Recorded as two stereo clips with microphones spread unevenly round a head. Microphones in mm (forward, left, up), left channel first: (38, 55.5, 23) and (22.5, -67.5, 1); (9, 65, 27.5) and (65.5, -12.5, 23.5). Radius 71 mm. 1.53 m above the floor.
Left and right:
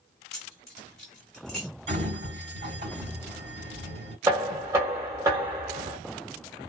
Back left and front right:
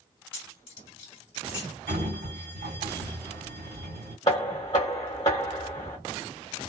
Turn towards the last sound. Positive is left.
turn(degrees=-170)